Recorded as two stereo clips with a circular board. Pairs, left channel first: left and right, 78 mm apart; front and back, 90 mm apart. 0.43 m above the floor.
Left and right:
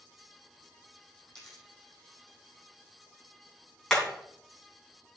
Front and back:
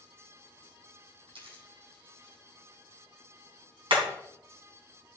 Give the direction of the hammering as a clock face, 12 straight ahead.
6 o'clock.